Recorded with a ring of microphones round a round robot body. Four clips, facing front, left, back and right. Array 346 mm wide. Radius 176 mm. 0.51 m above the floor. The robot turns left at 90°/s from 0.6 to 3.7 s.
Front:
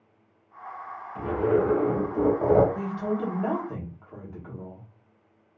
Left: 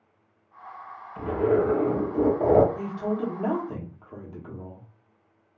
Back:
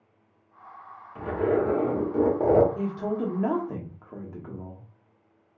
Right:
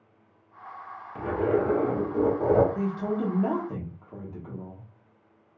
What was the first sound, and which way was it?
A zipper, 90° right.